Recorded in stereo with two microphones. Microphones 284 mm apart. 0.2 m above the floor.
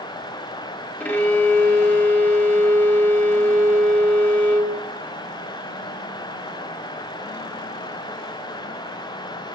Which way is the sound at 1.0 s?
5° left (ahead or behind).